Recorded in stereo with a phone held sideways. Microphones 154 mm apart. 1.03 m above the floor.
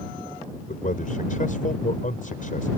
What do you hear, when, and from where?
0.7 s a man speaking: 60° left (ahead or behind)